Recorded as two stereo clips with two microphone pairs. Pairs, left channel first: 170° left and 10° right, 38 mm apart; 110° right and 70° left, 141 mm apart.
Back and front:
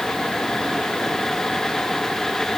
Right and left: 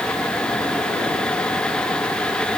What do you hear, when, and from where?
Only background noise.